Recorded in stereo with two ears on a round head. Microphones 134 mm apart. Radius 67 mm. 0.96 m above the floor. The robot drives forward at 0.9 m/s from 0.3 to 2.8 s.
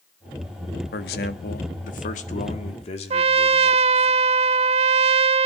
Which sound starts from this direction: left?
A man speaking, at 0.9 s.